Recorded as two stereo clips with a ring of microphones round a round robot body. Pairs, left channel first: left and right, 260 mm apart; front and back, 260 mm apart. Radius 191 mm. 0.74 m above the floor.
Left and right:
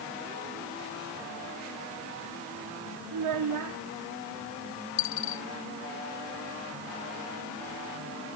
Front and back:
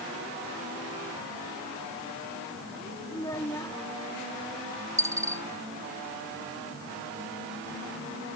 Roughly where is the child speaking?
Right.